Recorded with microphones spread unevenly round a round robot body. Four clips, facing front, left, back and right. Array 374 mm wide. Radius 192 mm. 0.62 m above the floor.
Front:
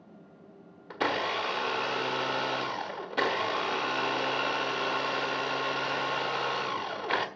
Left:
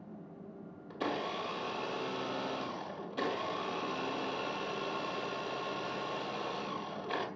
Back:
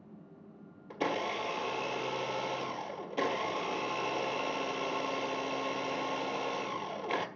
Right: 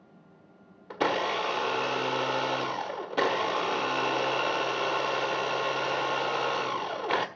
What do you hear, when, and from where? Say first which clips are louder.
0.9 s a blender: right 9 dB, front 4 dB; 65° right, 1.8 m